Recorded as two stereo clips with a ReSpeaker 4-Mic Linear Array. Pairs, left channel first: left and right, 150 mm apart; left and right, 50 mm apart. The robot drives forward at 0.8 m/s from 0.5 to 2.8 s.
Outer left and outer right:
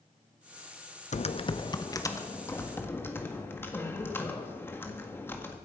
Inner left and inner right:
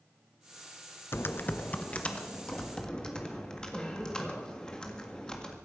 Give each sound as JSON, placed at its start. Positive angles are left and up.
{"t": 1.1, "sound": "typing on a keyboard", "side_deg": 50, "distance_m": 0.5}